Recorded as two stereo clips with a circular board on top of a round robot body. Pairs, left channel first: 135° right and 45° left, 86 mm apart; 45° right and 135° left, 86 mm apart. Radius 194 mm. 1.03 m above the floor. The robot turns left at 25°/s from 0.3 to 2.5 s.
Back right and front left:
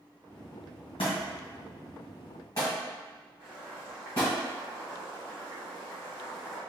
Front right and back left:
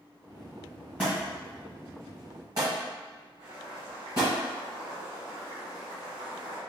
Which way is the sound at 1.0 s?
150° right.